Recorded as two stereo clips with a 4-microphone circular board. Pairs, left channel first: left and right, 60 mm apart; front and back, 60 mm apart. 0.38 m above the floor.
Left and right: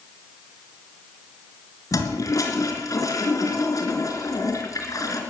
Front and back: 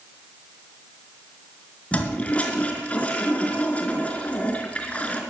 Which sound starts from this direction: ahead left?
A toilet flushing, at 1.9 s.